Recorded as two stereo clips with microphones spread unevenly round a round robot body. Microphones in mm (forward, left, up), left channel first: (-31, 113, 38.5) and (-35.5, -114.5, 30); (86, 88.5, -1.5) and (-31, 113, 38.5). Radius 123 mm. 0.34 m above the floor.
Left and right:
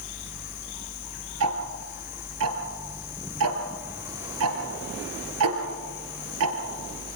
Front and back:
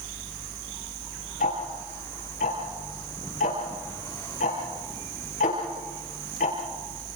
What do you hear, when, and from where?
1.4 s ticking: 60° right, 2.5 m